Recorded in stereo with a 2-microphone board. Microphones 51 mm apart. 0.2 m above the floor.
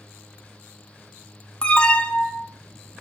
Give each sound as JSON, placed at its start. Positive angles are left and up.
{"t": 1.6, "sound": "an alarm", "side_deg": 20, "distance_m": 1.9}